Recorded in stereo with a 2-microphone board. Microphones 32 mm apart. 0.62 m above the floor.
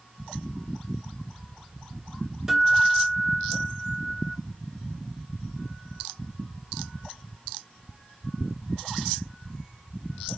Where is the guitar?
15° right (ahead or behind), 1.4 m.